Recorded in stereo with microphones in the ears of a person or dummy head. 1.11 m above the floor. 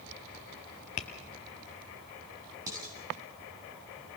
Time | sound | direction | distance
1.0 | tapping | 35° left (ahead or behind) | 1.2 m
2.7 | dishes clattering | 15° right (ahead or behind) | 6 m